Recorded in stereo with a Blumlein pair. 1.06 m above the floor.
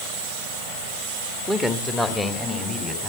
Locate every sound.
1.5 s a man speaking: 10° left, 1.7 m; by 3.1 s 15° left, 3 m